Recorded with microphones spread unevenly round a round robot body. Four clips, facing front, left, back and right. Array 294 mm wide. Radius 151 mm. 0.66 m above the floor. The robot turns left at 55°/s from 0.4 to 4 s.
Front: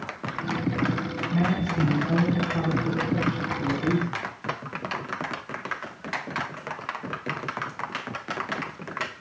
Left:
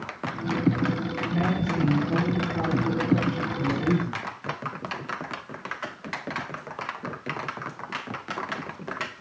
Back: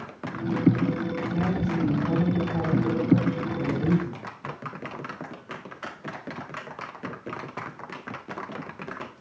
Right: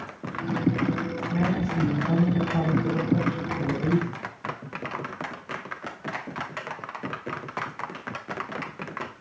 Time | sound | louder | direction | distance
1.3 | a man speaking | even, front 3 dB | 65° right | 4 m